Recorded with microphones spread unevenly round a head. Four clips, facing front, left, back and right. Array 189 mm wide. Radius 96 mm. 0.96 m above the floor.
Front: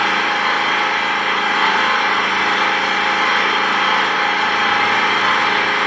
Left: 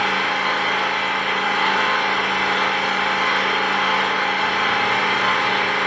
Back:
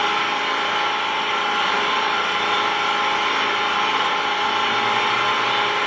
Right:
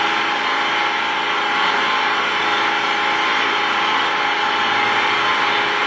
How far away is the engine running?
About 1.9 m.